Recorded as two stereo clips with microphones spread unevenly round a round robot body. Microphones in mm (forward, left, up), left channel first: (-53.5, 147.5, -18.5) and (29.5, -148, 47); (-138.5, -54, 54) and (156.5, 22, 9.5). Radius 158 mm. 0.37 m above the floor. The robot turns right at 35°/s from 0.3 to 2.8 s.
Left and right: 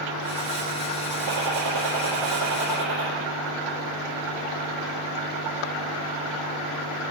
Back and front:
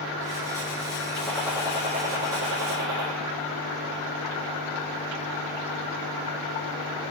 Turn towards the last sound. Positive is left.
turn(degrees=-25)